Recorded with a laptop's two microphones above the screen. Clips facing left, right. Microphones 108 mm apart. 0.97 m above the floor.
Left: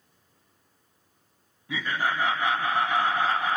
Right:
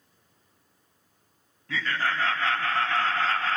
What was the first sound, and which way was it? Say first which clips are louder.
Laughter: left 1 dB; 15° left (ahead or behind).